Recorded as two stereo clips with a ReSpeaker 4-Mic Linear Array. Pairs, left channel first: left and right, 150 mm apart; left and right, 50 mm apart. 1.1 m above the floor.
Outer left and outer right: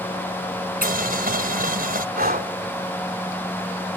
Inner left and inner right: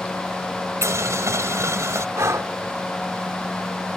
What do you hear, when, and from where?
0.8 s boiling: 75° right (ahead or behind)
2.1 s breathing: 80° right